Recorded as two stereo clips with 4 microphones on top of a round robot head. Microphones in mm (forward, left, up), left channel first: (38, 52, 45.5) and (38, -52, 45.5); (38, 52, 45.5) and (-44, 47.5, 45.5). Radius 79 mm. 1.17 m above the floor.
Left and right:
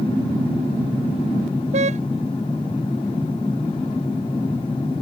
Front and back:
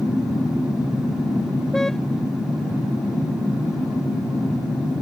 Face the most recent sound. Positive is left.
turn(degrees=-85)